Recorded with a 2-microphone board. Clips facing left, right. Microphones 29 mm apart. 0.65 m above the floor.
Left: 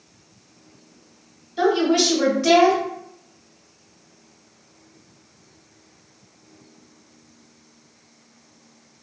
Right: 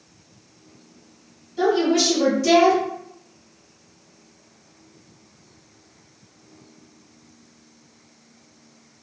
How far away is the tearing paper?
I don't hear tearing paper.